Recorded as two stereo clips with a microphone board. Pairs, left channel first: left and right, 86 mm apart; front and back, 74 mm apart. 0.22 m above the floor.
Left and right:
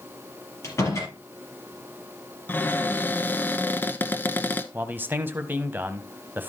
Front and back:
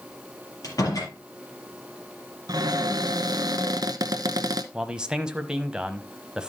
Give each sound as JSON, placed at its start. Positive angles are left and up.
{"t": 0.6, "sound": "a door slam", "azimuth_deg": 35, "distance_m": 4.5}
{"t": 2.5, "sound": "a cupboard door", "azimuth_deg": 155, "distance_m": 0.9}
{"t": 4.7, "sound": "a man speaking", "azimuth_deg": -115, "distance_m": 1.0}